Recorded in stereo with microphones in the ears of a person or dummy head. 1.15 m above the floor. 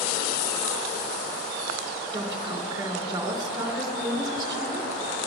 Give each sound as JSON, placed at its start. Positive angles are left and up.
{"t": 2.1, "sound": "a woman speaking", "side_deg": -20, "distance_m": 2.5}